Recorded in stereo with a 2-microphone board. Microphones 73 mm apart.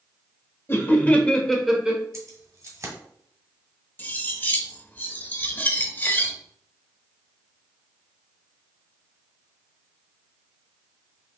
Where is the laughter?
30° left (ahead or behind), 1.1 m; by 2.0 s 15° right (ahead or behind), 0.9 m.